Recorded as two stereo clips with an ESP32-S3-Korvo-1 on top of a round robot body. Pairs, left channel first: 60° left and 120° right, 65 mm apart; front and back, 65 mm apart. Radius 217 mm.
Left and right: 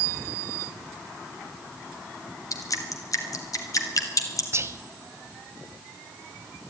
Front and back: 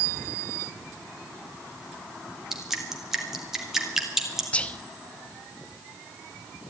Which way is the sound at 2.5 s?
95° left.